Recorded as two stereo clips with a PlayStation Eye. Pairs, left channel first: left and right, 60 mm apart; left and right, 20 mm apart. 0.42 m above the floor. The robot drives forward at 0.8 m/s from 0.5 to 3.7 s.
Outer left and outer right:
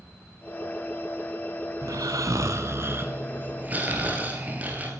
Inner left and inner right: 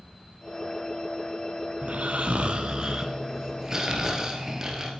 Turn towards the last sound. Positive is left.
turn(degrees=-30)  # may be behind; listen again after turning